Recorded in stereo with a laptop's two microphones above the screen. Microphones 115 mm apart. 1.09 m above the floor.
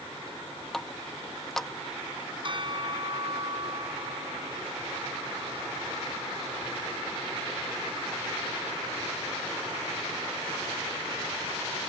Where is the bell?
45° right (ahead or behind).